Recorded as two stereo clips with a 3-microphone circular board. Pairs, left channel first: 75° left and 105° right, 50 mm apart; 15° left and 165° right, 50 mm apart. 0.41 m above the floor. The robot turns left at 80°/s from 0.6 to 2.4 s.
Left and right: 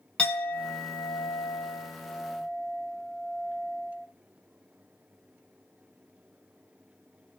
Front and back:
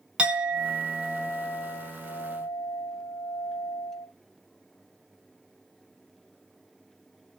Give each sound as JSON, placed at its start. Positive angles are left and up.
{"t": 0.2, "sound": "a clink", "azimuth_deg": 130, "distance_m": 0.9}